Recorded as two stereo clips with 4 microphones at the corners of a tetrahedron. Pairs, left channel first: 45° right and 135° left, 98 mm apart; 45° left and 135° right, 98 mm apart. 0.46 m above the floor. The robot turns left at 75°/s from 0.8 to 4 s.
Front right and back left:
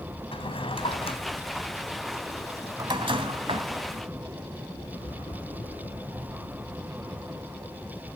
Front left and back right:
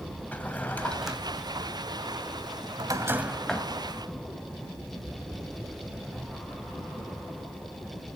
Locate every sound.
0.3 s a drawer: 30° right, 1.7 m; by 3.7 s 115° left, 1.7 m